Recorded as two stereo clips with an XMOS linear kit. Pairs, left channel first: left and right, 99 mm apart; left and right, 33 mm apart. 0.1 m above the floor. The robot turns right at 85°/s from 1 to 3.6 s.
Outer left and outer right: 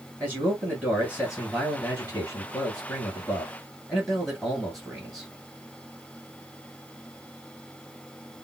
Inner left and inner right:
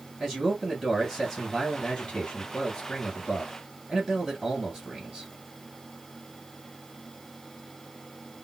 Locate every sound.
0.2 s a man speaking: 15° right (ahead or behind), 1.9 m; by 5.3 s centre (ahead or behind), 1.9 m